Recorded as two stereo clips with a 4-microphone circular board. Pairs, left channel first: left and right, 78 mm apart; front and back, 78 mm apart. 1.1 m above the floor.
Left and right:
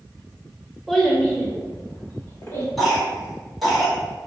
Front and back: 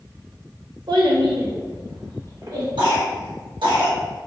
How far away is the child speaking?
About 0.8 m.